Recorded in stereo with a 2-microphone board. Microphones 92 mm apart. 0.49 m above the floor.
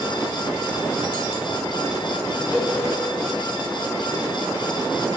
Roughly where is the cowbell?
Centre.